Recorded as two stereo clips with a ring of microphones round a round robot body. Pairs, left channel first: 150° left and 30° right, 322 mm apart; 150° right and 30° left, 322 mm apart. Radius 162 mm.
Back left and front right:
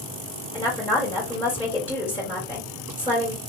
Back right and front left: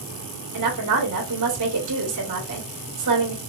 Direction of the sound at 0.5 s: 70° left.